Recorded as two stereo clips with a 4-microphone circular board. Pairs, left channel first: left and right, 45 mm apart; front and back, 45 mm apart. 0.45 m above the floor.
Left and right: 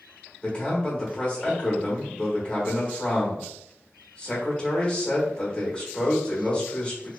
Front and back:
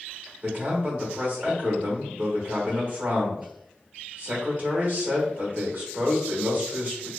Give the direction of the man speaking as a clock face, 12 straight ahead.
7 o'clock.